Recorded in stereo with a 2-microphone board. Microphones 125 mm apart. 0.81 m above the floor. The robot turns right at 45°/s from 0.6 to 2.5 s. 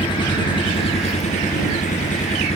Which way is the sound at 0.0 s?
40° left.